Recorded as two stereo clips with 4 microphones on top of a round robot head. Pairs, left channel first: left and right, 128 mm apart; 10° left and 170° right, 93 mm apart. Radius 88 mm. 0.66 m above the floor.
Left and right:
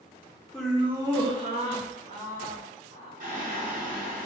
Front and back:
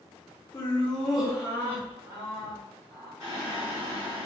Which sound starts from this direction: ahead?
Laughter, at 0.5 s.